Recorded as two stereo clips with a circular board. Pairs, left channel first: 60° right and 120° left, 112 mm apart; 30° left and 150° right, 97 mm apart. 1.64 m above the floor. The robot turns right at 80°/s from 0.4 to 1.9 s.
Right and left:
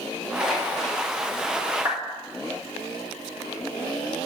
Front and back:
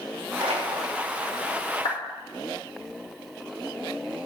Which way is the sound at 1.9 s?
60° left.